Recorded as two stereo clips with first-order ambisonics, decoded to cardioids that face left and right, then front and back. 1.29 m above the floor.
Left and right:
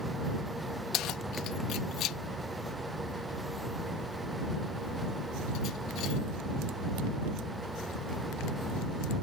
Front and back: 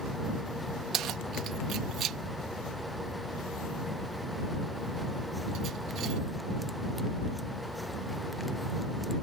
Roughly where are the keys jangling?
Behind left.